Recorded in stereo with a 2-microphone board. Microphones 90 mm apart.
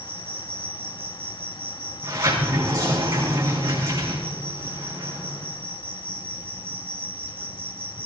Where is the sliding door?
40° right (ahead or behind), 6.5 m.